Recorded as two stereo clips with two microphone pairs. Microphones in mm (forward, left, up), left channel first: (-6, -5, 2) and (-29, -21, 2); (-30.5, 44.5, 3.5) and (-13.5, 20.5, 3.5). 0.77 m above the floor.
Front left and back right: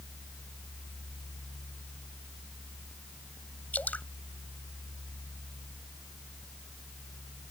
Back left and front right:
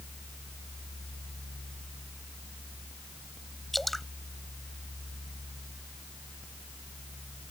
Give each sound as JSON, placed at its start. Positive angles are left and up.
{"t": 3.7, "sound": "dripping", "azimuth_deg": 40}